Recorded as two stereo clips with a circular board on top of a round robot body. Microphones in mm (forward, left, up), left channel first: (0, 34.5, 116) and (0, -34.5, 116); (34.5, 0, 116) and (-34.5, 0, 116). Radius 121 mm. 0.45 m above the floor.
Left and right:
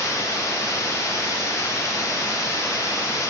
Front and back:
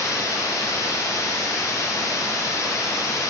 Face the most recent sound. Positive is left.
turn(degrees=45)